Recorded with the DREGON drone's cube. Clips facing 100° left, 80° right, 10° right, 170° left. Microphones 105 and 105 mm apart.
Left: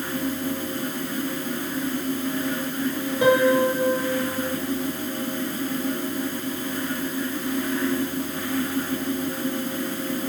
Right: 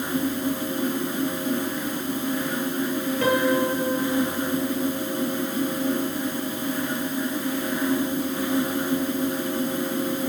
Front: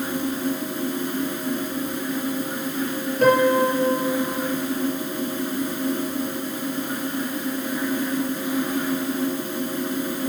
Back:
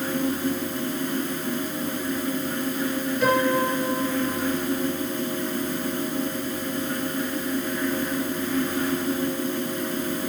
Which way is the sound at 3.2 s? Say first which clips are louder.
Left 4 dB, front 5 dB; 30° left.